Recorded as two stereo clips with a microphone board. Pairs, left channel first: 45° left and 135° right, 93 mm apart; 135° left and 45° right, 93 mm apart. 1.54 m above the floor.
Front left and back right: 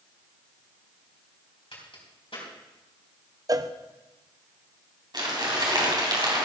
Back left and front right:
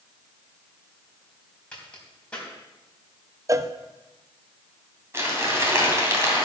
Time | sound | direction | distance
1.7 | a crack | 55° left | 3.5 m
3.5 | a cowbell | 95° right | 0.5 m
5.1 | crumpling | 105° right | 3 m